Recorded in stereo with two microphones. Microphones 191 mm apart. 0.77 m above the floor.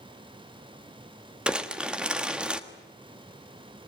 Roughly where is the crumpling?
Centre.